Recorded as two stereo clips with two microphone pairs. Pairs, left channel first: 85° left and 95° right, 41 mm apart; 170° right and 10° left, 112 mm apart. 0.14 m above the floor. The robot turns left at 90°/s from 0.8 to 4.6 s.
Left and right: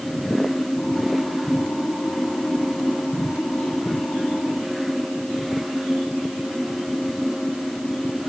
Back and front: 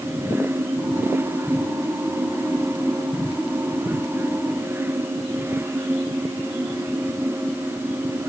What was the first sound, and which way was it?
Only background noise.